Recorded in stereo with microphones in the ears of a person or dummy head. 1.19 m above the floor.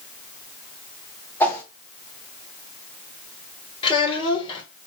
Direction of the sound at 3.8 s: 35° left (ahead or behind).